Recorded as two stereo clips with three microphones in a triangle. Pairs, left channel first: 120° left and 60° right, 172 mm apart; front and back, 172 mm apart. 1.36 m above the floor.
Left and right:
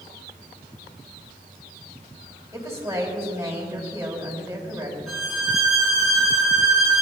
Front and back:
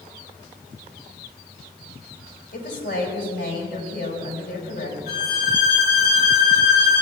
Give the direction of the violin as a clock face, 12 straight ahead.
11 o'clock.